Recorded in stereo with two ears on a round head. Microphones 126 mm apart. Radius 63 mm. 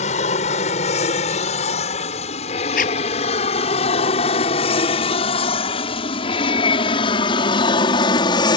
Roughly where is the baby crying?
No baby crying in this recording.